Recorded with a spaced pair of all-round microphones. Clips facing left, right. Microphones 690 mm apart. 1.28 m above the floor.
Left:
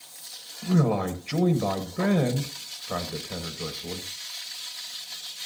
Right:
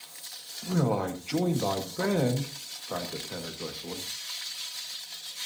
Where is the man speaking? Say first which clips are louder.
Left 4 dB; 45° left (ahead or behind), 1.4 m.